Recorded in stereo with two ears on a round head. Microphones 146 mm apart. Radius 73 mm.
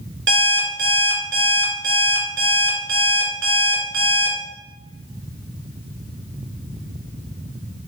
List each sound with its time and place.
0.3 s an alarm clock: 75° right (ahead or behind), 1.3 m